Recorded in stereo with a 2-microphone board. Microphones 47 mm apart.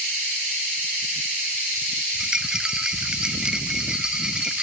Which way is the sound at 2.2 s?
15° right (ahead or behind).